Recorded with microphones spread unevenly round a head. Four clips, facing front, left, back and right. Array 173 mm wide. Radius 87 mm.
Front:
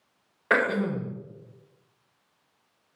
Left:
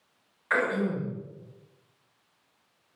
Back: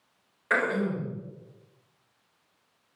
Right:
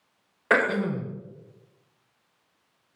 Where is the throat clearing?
60° right, 1.2 m.